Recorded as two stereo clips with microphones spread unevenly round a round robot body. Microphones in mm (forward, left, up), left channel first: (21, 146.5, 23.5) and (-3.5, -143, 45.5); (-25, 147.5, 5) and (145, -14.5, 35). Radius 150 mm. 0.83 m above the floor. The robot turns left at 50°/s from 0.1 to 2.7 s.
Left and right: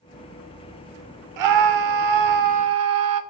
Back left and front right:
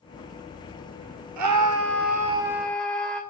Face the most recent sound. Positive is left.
turn(degrees=-135)